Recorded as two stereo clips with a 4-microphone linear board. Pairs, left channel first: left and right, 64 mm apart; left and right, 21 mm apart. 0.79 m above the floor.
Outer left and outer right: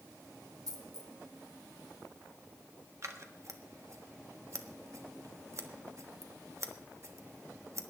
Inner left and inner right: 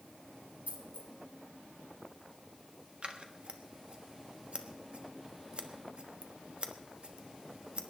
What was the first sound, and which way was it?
A dropped coin, 80° right.